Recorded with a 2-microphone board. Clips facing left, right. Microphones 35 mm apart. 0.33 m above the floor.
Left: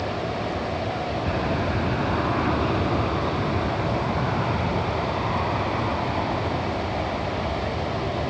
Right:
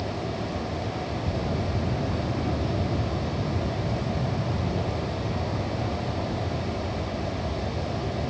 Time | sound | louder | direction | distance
0.0 | an aircraft | left 4 dB | 55° left (ahead or behind) | ?